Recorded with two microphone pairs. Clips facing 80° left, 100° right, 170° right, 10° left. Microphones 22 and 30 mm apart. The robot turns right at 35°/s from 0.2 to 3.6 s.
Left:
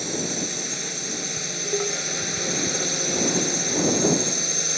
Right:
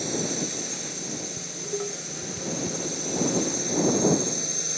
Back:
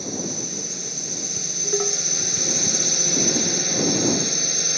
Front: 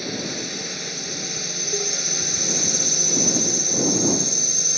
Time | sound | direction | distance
0.0 | a drone | 10° left | ?
1.4 | dishes clattering | 135° left | ?